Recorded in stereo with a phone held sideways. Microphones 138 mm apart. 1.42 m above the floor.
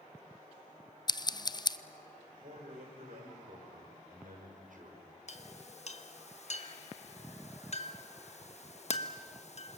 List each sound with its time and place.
1.1 s scissors: 30° left (ahead or behind), 0.5 m
2.4 s a man speaking: 75° right (ahead or behind), 5 m
5.3 s a clink: 55° left (ahead or behind), 1.3 m